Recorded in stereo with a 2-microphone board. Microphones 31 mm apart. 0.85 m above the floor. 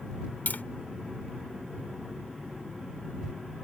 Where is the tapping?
75° left (ahead or behind).